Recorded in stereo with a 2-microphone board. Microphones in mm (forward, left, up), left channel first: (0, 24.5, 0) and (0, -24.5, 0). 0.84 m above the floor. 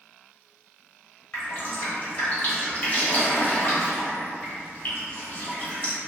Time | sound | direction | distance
1.3 | dripping | 40° left (ahead or behind) | 0.9 m